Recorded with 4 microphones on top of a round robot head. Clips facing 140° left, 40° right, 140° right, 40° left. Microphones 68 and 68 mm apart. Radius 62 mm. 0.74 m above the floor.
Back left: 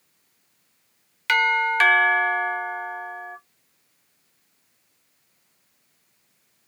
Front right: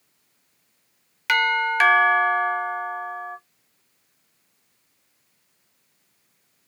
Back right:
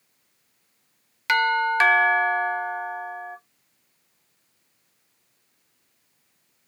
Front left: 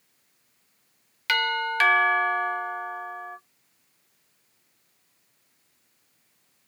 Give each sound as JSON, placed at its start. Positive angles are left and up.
{"t": 1.3, "sound": "a doorbell", "azimuth_deg": -120, "distance_m": 0.9}